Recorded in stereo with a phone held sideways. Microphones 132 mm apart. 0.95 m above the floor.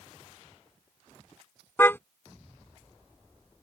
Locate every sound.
1.8 s a car horn: 15° left (ahead or behind)